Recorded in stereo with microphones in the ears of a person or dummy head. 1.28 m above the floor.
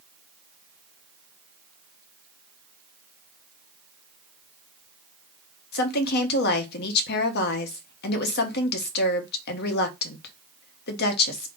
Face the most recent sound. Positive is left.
turn(degrees=60)  # may be behind; listen again after turning